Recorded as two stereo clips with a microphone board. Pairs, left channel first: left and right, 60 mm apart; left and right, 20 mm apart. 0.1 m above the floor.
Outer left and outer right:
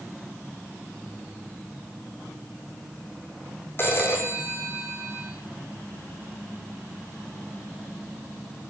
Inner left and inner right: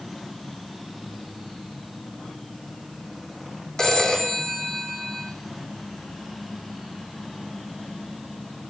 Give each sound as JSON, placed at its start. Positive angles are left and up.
{"t": 3.8, "sound": "a phone ringing", "side_deg": 35, "distance_m": 3.0}